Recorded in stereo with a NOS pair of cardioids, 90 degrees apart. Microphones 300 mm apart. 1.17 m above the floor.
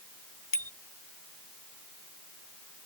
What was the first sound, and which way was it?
A bicycle bell, 45° left.